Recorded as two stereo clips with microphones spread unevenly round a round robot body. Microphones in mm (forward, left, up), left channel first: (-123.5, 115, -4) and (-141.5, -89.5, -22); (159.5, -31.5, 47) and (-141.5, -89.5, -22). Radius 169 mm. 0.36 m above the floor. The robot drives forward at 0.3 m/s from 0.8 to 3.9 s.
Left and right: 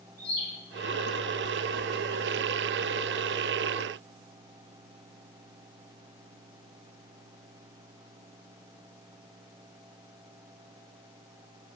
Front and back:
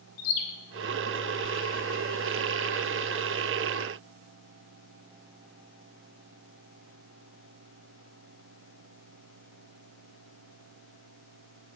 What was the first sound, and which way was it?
A bird, straight ahead.